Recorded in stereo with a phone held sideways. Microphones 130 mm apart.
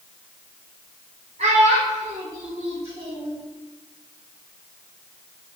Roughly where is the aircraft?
No aircraft in this recording.